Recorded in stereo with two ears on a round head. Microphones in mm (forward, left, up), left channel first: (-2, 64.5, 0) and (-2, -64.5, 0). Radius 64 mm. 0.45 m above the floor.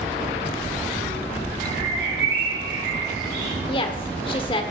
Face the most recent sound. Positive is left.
turn(degrees=35)  # may be behind; listen again after turning